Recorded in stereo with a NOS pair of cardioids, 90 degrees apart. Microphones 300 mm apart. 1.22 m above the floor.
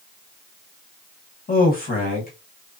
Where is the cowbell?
I don't hear a cowbell.